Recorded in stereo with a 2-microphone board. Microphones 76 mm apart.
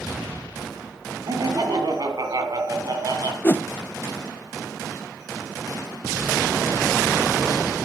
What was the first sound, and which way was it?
Laughter, 60° right (ahead or behind).